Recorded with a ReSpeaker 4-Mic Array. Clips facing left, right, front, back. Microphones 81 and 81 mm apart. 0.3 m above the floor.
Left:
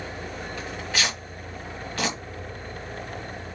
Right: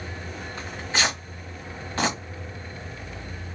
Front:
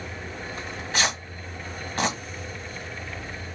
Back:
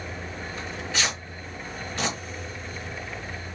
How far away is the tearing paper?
About 1.8 m.